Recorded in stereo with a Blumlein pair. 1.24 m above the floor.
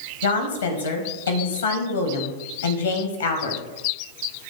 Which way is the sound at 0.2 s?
65° left.